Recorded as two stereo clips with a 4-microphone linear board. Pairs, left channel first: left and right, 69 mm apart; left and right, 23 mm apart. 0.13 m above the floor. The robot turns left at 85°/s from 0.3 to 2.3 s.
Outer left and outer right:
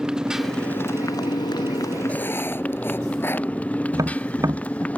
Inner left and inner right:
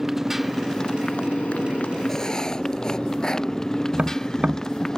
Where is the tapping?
50° right (ahead or behind).